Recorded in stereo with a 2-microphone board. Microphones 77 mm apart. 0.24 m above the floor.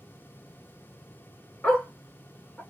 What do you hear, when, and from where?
1.6 s a dog barking: 15° left (ahead or behind), 0.9 m